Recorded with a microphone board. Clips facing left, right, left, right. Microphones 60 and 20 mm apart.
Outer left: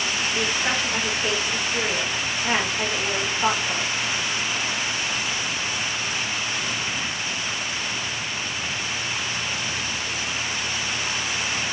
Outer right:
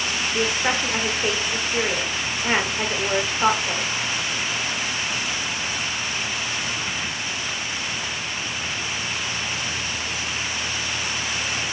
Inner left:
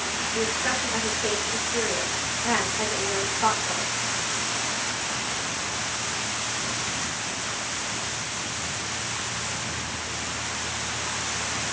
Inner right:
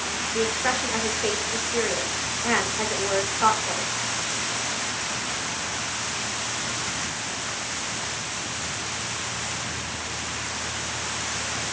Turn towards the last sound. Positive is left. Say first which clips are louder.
# outer right 3 dB, inner right 2 dB
turn(degrees=-40)  # may be behind; listen again after turning